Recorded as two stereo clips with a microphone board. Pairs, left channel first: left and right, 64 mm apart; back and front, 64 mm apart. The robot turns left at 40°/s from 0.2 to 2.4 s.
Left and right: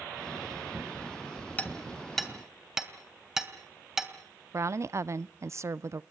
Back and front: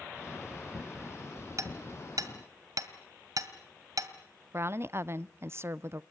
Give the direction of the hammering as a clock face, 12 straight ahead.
11 o'clock.